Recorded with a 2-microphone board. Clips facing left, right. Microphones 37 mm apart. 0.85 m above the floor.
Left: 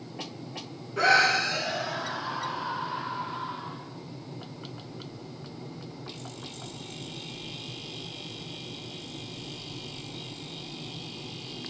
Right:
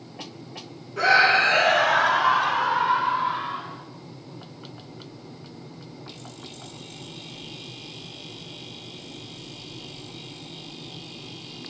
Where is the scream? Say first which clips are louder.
Right 4 dB; centre (ahead or behind), 1.1 m; by 3.8 s 75° right (ahead or behind), 4 m.